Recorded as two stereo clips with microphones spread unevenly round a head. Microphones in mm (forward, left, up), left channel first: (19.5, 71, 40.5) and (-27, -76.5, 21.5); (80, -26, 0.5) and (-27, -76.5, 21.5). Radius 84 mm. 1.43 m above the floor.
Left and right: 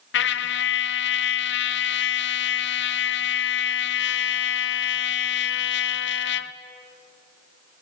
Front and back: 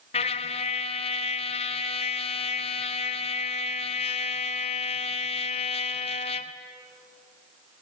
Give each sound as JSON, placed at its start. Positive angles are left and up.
{"t": 0.1, "sound": "a trumpet", "azimuth_deg": 75, "distance_m": 0.9}